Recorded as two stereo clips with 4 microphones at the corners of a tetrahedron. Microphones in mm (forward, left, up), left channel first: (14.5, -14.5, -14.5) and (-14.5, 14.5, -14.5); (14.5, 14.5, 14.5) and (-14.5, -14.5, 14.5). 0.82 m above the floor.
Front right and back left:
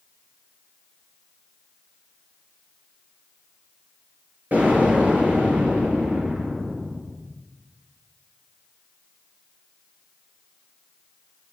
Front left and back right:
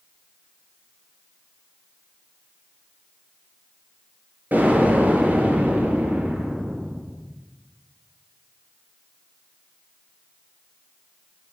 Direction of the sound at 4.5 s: Straight behind.